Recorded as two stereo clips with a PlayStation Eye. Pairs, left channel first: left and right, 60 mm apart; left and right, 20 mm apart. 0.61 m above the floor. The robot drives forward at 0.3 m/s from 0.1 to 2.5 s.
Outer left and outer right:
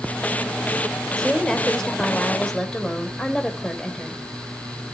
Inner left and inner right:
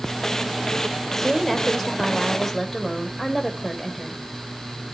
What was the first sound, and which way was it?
A woman speaking, 15° left (ahead or behind).